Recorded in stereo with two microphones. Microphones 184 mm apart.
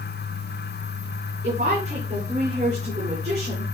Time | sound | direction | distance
1.4 | a woman speaking | 50° right (ahead or behind) | 4 m